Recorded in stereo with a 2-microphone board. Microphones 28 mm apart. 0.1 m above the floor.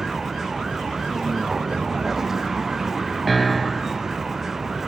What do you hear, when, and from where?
0.0 s a vehicle: 10° right (ahead or behind)
3.3 s a piano: centre (ahead or behind)